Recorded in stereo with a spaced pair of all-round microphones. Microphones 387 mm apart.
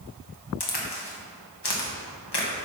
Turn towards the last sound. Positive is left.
turn(degrees=80)